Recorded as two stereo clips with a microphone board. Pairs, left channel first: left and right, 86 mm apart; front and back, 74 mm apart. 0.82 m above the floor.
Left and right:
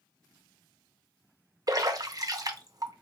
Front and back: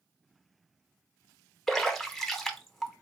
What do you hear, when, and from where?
1.7 s a splash: 85° right, 0.7 m